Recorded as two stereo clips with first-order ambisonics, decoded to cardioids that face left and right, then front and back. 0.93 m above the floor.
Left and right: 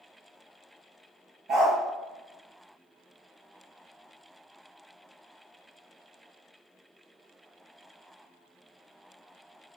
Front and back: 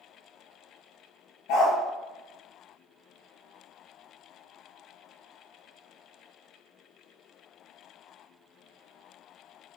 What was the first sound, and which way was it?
A dog barking, 35° right.